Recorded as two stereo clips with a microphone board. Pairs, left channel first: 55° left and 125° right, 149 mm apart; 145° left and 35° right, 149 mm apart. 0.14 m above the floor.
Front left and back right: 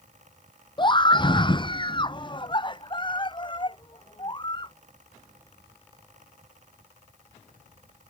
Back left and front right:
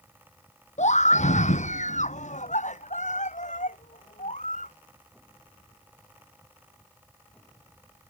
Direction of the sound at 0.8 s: 110° left.